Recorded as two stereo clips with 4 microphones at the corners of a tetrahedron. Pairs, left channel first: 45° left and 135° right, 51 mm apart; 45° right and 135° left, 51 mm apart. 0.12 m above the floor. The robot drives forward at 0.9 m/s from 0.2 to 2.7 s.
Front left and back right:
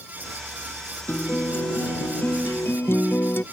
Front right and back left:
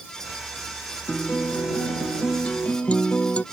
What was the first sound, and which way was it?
A guitar, 10° left.